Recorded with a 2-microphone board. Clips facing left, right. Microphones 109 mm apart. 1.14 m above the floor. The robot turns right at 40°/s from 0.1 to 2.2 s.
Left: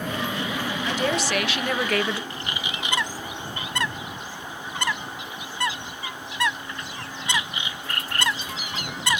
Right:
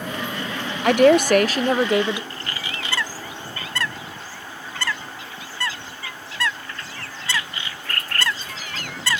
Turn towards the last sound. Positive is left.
turn(degrees=20)  # may be behind; listen again after turning